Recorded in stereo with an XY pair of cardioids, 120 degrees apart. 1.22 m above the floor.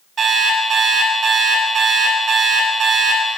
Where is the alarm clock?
60° right, 5 m.